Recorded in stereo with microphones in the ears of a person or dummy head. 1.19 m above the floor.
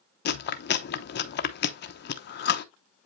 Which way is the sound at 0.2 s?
45° left (ahead or behind).